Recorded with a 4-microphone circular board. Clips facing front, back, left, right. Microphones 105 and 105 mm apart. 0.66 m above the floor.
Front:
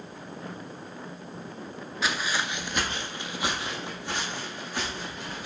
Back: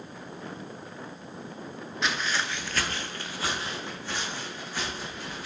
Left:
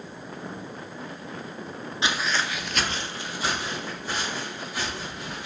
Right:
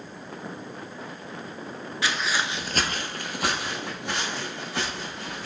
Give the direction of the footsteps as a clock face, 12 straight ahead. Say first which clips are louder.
Front 1 dB, even; 9 o'clock.